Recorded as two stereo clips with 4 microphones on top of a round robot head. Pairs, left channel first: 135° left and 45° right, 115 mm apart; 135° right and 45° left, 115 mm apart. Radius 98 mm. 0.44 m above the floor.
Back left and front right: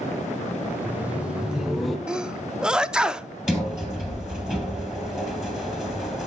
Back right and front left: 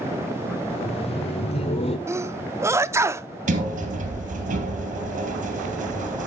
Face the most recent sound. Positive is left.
turn(degrees=40)